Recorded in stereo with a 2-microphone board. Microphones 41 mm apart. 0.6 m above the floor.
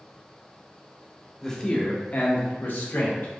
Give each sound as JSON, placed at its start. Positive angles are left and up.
{"t": 1.4, "sound": "a man speaking", "side_deg": 10, "distance_m": 0.9}